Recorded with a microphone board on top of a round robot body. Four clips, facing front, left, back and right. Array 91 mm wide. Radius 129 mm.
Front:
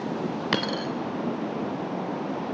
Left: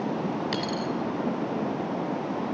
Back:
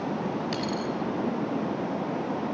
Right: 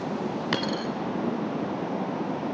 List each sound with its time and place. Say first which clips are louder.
0.5 s a dropped coin: right 1 dB, front 2 dB; 25° right, 0.6 m